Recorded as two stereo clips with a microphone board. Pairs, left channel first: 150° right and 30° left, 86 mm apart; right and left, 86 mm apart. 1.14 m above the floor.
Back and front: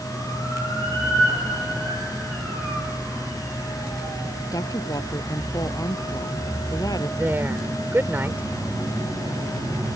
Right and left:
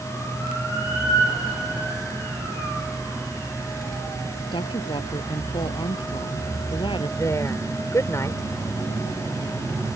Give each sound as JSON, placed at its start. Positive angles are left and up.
{"t": 4.5, "sound": "a woman speaking", "azimuth_deg": -105}
{"t": 7.2, "sound": "a woman speaking", "azimuth_deg": -35}